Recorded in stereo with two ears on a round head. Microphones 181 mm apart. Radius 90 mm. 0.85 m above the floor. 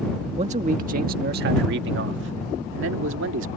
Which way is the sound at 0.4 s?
30° right (ahead or behind).